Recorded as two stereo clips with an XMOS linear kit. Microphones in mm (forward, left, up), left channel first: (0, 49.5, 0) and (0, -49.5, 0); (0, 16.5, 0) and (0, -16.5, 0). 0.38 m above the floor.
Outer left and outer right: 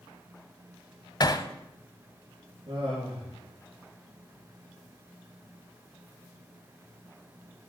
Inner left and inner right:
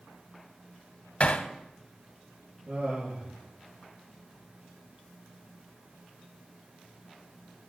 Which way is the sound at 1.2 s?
45° left (ahead or behind).